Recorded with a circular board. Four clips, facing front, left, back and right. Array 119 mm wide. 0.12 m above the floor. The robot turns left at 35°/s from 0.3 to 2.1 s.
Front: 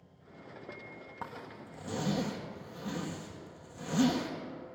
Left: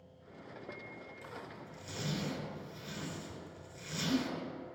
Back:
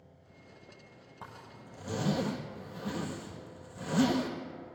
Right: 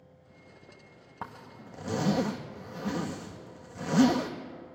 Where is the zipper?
65° right, 1.8 m; by 4.3 s 95° right, 1.8 m.